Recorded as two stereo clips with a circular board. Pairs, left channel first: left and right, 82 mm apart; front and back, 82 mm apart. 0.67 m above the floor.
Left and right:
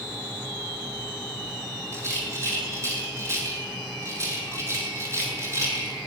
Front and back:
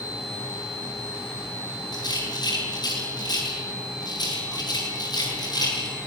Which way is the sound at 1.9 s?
35° right.